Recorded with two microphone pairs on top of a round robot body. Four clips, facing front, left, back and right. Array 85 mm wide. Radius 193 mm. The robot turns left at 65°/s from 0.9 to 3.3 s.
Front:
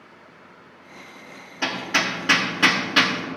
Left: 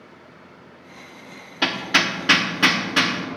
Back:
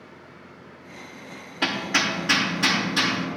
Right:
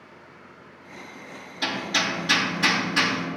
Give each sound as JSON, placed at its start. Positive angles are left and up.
{"t": 1.6, "sound": "hammering", "azimuth_deg": 110, "distance_m": 1.3}